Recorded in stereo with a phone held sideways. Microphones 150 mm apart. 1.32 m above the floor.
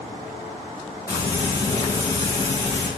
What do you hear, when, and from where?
1.1 s frying: 25° left (ahead or behind), 1.4 m